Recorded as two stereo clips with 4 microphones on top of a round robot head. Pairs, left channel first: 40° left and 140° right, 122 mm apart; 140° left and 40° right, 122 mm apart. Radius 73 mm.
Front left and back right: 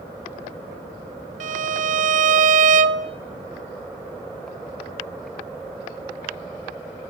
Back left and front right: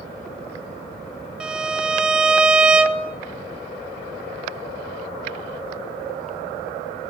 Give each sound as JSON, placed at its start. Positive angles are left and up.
{"t": 1.4, "sound": "a violin", "azimuth_deg": -125, "distance_m": 0.9}